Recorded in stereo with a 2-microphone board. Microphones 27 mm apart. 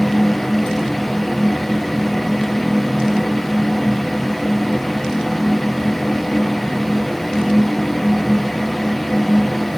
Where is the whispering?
I don't hear whispering.